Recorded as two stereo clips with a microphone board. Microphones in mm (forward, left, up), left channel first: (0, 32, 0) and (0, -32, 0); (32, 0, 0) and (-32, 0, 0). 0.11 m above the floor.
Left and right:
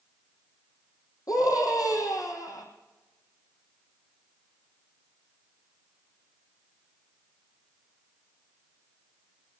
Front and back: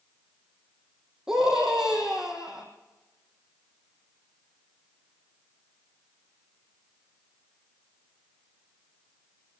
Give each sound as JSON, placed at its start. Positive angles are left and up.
{"t": 1.3, "sound": "a scream", "azimuth_deg": 100, "distance_m": 4.5}